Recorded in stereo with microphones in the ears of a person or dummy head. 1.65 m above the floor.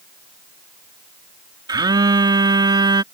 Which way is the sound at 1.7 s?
25° right (ahead or behind).